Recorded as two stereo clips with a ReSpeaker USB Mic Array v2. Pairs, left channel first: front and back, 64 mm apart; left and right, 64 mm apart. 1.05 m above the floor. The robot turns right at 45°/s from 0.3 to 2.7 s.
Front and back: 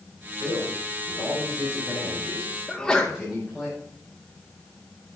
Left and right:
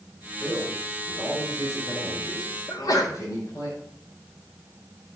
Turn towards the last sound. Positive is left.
turn(degrees=80)